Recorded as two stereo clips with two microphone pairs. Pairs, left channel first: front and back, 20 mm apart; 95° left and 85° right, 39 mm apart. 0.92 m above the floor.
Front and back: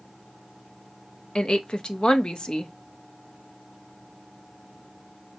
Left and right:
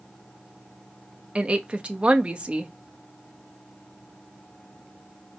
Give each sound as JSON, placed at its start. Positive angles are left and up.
{"t": 1.4, "sound": "a woman speaking", "azimuth_deg": -35, "distance_m": 0.9}